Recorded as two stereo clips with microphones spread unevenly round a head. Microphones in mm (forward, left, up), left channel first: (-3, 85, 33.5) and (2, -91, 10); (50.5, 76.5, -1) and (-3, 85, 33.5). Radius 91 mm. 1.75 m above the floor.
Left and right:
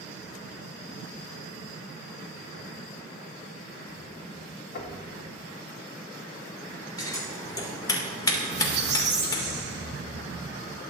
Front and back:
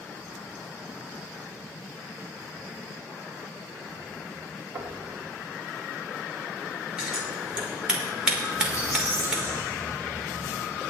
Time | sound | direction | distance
4.8 | knocking | 125° left | 2.5 m
7.0 | scissors | 150° left | 1.9 m
8.5 | a squeak | 90° right | 0.8 m